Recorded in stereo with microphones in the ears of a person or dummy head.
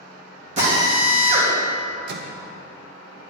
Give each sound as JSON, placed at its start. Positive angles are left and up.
{"t": 0.6, "sound": "a drill", "side_deg": -45, "distance_m": 3.0}
{"t": 2.1, "sound": "a microwave", "side_deg": -60, "distance_m": 1.0}